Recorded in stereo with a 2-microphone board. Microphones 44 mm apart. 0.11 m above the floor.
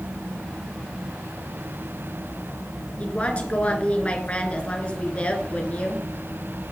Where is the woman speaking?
30° left (ahead or behind), 1.5 m.